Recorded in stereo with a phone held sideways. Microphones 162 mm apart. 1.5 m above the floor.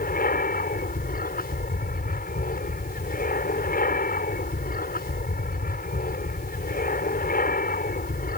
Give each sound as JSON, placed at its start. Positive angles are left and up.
{"t": 0.0, "sound": "an aircraft", "side_deg": 60}